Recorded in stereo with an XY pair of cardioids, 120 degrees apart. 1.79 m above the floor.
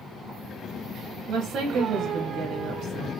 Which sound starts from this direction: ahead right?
A woman speaking, at 1.3 s.